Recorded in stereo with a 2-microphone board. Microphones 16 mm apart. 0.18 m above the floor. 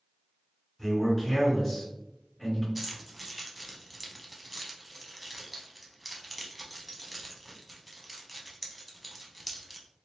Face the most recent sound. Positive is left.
turn(degrees=0)  # may be behind; listen again after turning